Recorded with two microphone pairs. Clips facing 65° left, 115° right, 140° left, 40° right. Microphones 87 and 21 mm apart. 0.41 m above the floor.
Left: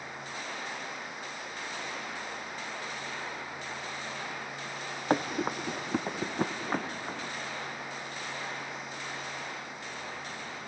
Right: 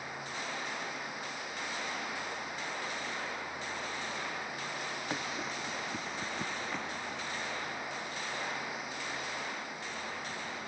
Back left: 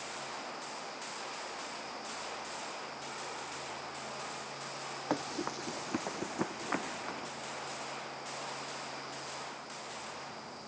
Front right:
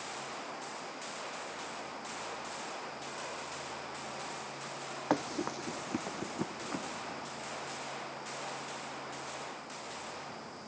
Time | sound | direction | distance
5.1 | running footsteps | 35° left | ?